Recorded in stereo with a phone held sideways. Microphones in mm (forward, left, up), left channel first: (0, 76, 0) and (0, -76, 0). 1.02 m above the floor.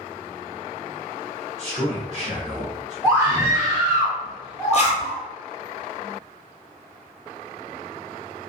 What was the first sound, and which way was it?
A man speaking, 45° right (ahead or behind).